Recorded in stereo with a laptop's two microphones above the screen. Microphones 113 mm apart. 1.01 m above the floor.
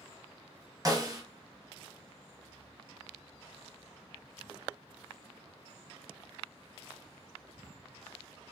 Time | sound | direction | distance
0.8 | a snare drum | 30° right (ahead or behind) | 1.0 m